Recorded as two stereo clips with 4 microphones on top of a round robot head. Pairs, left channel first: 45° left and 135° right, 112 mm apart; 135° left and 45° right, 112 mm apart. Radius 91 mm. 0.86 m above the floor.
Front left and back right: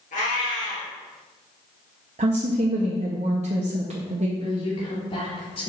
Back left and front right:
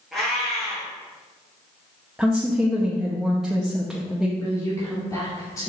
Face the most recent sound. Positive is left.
turn(degrees=75)